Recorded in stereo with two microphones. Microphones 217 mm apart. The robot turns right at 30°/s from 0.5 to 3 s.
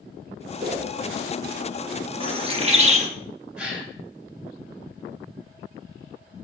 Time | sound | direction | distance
0.6 | a whoosh | 25° right (ahead or behind) | 1.5 m
2.2 | a bird | 25° right (ahead or behind) | 0.9 m
3.6 | a gasp | 5° right (ahead or behind) | 2.5 m